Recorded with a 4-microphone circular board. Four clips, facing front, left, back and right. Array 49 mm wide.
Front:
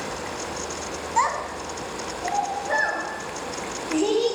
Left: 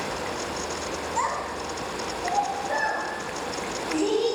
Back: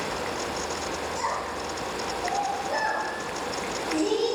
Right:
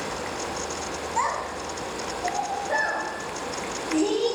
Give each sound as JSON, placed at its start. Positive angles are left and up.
{"t": 1.2, "sound": "a child speaking", "azimuth_deg": 0, "distance_m": 1.8}